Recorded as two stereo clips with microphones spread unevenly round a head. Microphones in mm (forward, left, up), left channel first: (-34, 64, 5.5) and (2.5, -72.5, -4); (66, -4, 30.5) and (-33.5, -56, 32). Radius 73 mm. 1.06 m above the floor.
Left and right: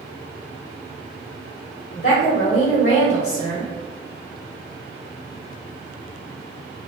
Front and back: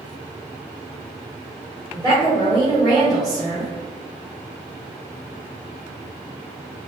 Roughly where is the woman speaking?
Behind left.